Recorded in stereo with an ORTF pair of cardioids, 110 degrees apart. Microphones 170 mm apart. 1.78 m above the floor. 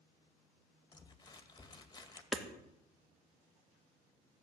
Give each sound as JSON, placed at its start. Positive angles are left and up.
{"t": 0.9, "sound": "crumpling", "azimuth_deg": 25, "distance_m": 2.0}
{"t": 2.3, "sound": "hammering", "azimuth_deg": -5, "distance_m": 2.0}